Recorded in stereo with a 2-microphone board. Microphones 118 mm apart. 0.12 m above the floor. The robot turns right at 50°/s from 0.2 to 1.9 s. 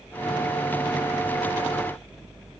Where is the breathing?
No breathing in this recording.